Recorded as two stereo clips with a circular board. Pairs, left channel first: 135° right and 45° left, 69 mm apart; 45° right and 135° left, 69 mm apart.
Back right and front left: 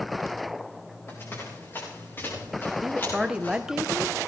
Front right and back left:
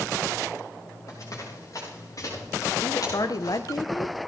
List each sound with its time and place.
1.1 s running footsteps: 85° right, 9.5 m; by 3.6 s 75° right, 8.5 m
2.8 s a woman speaking: 35° right, 0.9 m